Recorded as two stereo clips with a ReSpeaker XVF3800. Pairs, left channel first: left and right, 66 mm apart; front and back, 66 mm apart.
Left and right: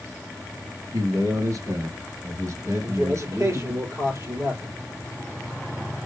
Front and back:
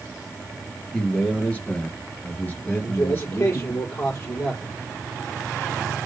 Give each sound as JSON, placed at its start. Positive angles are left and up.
{"t": 0.9, "sound": "a man speaking", "azimuth_deg": -75, "distance_m": 3.5}
{"t": 2.8, "sound": "a man speaking", "azimuth_deg": -45, "distance_m": 4.5}